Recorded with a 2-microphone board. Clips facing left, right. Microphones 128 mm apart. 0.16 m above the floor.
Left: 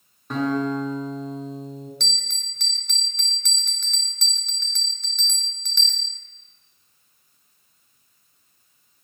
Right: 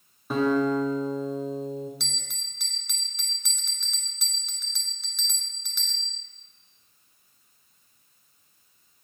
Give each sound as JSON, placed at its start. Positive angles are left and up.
{"t": 0.3, "sound": "a guitar", "side_deg": -5, "distance_m": 1.7}
{"t": 2.0, "sound": "a bell", "side_deg": -5, "distance_m": 0.8}